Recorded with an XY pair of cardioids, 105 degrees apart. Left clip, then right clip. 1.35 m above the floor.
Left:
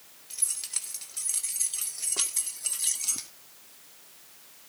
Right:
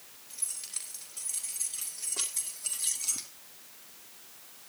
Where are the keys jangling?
50° left, 3 m; by 3.3 s 20° left, 1.4 m.